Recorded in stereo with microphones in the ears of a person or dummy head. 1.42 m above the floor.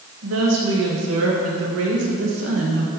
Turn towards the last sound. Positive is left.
turn(degrees=-75)  # may be behind; listen again after turning